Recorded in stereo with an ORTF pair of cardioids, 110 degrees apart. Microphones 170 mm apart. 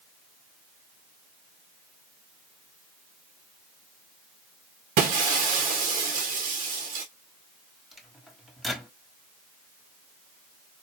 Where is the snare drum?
No snare drum in this recording.